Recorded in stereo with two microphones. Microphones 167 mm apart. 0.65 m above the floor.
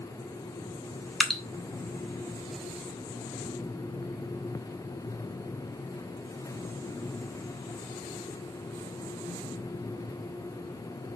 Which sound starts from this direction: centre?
Dripping, at 1.2 s.